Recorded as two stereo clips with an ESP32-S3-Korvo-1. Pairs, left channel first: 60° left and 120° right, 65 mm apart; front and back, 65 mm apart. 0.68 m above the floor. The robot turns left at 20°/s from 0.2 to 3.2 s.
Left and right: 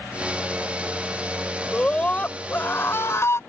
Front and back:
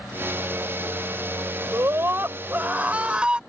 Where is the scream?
135° left; by 3.4 s 105° left.